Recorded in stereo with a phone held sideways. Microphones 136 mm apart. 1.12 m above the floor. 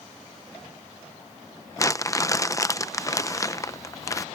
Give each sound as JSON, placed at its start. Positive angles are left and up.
{"t": 1.8, "sound": "crumpling", "side_deg": 25}